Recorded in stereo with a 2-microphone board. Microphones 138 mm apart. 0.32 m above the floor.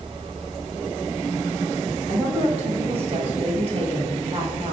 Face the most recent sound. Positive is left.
turn(degrees=-50)  # may be behind; listen again after turning